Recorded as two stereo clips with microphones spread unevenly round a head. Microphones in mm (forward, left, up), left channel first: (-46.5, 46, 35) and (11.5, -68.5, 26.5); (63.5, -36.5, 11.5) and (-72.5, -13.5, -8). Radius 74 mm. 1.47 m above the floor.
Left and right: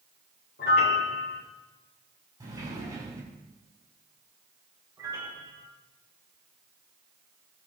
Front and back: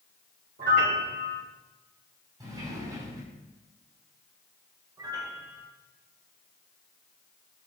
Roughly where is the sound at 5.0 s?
Behind right.